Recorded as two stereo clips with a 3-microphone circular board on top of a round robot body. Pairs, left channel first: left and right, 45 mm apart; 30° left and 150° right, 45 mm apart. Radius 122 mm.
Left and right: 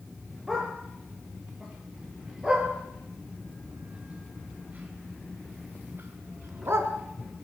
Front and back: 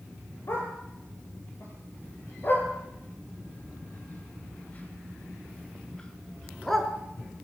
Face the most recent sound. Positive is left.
turn(degrees=-55)